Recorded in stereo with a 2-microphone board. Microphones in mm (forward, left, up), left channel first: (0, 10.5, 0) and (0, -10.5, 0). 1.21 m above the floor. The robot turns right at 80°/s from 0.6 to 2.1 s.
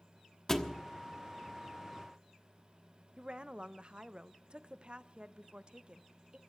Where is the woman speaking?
55° right (ahead or behind), 0.7 m.